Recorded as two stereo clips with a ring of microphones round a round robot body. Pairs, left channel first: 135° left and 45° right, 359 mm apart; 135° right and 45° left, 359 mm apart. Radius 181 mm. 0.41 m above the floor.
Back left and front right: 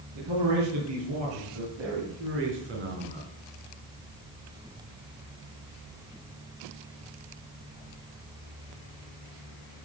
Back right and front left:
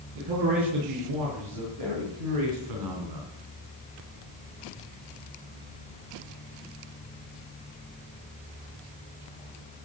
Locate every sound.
0.1 s a man speaking: straight ahead, 7 m; by 3.3 s 20° left, 3 m